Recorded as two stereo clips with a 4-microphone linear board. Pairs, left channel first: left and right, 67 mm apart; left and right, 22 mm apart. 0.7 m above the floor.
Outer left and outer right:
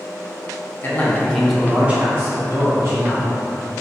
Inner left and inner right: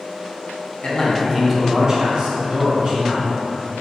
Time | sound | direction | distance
0.8 | a man speaking | 35° left (ahead or behind) | 0.6 m